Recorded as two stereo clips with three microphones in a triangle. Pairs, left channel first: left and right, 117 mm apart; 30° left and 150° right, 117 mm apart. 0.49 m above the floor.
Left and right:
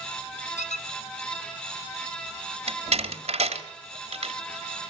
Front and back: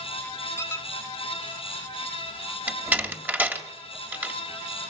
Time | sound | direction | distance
0.6 | a squeak | 95° left | 0.8 m
2.7 | a door slam | 75° right | 2.0 m